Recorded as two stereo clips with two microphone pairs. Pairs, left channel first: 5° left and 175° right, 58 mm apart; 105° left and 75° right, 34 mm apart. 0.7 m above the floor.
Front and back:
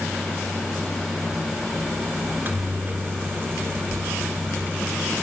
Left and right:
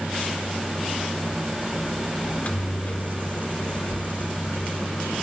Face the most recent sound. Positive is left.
turn(degrees=140)